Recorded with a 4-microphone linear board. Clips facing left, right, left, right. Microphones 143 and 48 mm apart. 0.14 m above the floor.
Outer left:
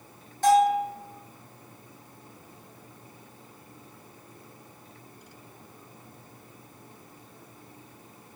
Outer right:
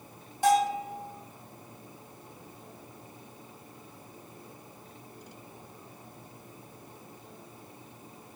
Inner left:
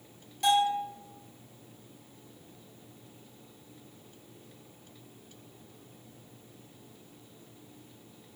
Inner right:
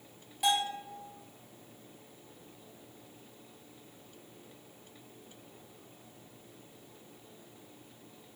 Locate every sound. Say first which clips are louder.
0.4 s a bell: outer left 4 dB, inner left 5 dB; 10° right (ahead or behind), 1.2 m